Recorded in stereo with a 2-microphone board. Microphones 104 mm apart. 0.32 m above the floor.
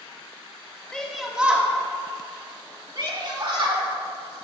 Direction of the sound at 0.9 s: 10° left (ahead or behind).